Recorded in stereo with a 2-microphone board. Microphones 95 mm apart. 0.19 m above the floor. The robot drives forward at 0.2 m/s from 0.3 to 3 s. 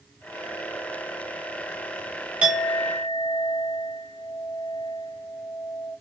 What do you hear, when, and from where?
2.4 s a clink: 10° right (ahead or behind), 0.8 m